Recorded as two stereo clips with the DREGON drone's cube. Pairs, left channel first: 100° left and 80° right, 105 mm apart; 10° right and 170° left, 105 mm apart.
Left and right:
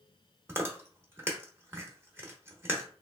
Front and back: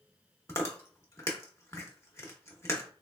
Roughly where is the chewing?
Ahead right.